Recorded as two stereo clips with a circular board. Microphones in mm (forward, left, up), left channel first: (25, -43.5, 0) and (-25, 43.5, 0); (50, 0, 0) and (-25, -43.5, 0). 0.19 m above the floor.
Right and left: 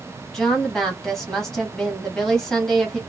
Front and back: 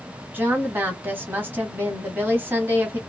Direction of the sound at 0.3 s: 135° right.